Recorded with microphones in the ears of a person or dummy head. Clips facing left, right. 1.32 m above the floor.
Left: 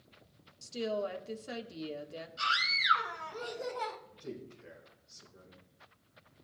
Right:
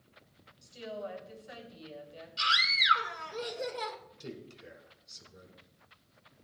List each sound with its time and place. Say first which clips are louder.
0.6 s a woman speaking: left 6 dB; 65° left (ahead or behind), 1.5 m
2.4 s a scream: right 1 dB; 40° right (ahead or behind), 3.5 m
4.2 s a man speaking: left 1 dB; 45° right (ahead or behind), 4.5 m